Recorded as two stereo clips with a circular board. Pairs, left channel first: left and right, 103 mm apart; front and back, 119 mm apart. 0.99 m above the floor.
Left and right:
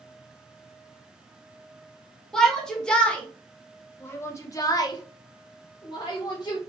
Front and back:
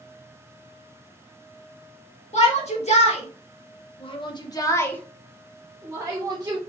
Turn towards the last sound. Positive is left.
turn(degrees=135)